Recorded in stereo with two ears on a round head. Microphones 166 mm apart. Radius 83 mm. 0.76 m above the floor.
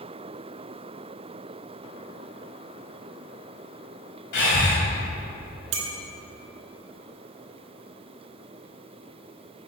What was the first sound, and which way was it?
Breathing, 60° left (ahead or behind).